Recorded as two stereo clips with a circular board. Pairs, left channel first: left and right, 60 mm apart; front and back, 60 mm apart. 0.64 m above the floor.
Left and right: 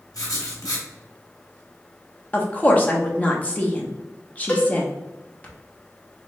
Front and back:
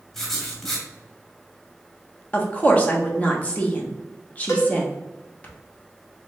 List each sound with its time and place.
0.1 s writing: 80° left, 1.1 m
2.3 s a woman speaking: 45° left, 0.7 m
4.5 s a cowbell: 25° left, 1.1 m